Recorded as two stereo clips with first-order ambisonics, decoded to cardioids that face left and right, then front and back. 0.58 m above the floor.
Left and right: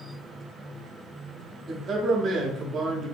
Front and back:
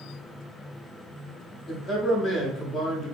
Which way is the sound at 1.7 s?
45° right.